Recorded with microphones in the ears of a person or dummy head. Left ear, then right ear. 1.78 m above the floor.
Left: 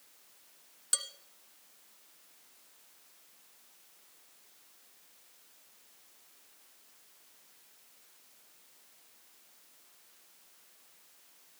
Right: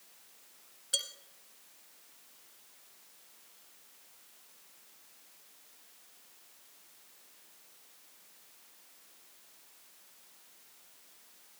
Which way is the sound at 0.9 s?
55° left (ahead or behind).